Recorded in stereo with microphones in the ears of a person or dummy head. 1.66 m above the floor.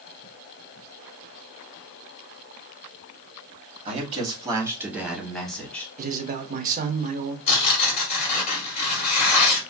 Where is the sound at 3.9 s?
40° right (ahead or behind), 1.2 m; by 5.9 s 5° left (ahead or behind), 1.5 m.